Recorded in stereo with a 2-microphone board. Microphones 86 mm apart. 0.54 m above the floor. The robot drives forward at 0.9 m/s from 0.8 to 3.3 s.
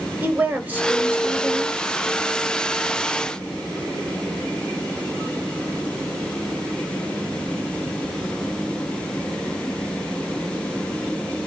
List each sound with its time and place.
0.2 s a woman speaking: 20° right (ahead or behind), 2.5 m; by 1.8 s 30° right (ahead or behind), 1.7 m